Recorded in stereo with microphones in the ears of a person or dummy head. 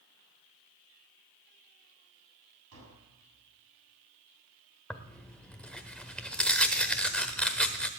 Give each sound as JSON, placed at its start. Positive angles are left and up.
{"t": 2.7, "sound": "tapping", "side_deg": -90, "distance_m": 8.0}
{"t": 4.9, "sound": "tearing paper", "side_deg": 0, "distance_m": 1.1}